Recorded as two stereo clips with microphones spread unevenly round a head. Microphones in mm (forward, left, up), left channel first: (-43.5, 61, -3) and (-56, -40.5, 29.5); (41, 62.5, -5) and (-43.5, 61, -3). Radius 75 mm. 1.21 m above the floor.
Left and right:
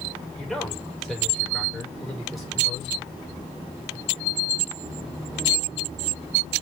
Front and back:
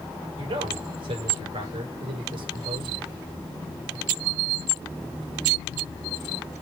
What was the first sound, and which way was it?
A man speaking, 175° left.